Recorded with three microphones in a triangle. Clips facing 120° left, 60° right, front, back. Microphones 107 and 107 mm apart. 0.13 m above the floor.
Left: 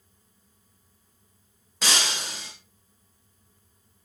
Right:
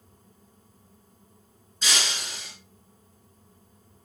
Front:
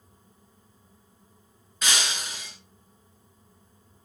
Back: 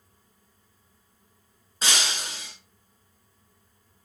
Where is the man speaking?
I don't hear a man speaking.